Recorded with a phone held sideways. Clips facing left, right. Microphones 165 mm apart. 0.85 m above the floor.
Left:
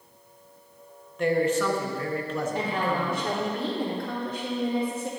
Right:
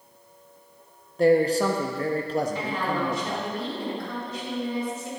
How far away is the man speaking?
About 0.7 m.